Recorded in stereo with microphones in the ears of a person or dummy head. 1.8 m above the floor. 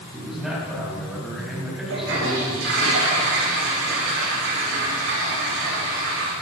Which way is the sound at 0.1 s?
Centre (ahead or behind).